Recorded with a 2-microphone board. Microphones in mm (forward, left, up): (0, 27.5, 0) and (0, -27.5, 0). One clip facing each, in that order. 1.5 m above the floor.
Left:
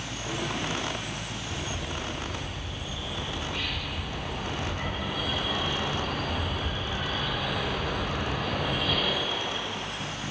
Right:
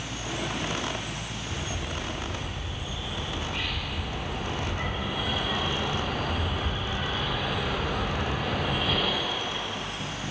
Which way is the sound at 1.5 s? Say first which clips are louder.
Even; 20° right (ahead or behind).